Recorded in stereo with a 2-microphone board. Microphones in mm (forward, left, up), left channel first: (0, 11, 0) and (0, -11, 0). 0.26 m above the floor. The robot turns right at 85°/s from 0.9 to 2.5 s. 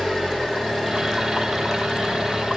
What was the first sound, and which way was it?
An engine running, 170° right.